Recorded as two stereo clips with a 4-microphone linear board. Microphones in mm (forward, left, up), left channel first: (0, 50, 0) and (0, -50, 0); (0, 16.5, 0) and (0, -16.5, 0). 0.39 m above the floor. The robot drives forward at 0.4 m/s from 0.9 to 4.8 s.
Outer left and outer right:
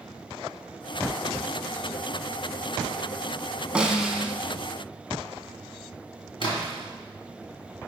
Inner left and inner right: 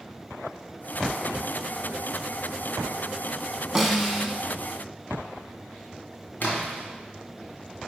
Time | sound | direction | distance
3.8 | a snare drum | 10° right (ahead or behind) | 0.8 m
6.4 | a splash | 60° left (ahead or behind) | 2.5 m